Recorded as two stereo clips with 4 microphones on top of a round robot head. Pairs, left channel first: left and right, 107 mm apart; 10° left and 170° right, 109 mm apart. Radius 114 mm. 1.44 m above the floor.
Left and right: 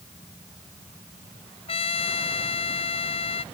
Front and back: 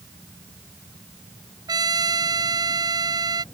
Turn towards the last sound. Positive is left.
turn(degrees=135)